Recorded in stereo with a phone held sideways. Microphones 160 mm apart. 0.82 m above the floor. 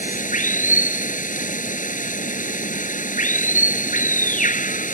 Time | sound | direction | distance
0.0 | running water | 55° left (ahead or behind) | ?